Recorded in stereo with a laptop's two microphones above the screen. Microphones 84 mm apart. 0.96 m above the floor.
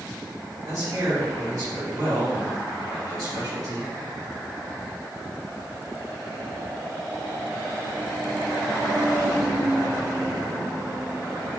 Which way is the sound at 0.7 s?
50° right (ahead or behind).